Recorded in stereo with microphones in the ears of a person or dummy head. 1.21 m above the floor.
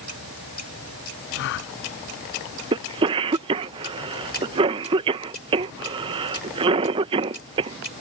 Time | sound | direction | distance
1.4 | a gasp | 70° left (ahead or behind) | ?
2.7 | a cough | 35° right (ahead or behind) | ?